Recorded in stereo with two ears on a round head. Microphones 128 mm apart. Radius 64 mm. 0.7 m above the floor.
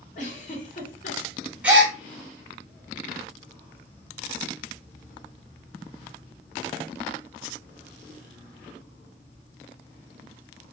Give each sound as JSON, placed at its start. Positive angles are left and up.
{"t": 0.1, "sound": "a giggle", "side_deg": 60, "distance_m": 1.1}
{"t": 1.6, "sound": "a gasp", "side_deg": -10, "distance_m": 0.9}